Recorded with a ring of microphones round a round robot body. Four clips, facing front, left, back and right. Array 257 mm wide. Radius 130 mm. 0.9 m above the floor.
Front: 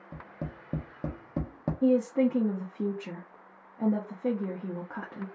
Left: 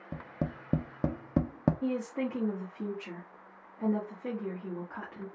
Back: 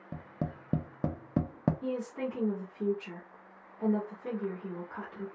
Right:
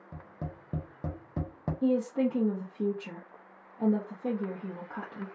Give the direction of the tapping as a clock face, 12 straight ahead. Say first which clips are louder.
Left 6 dB, back 2 dB; 8 o'clock.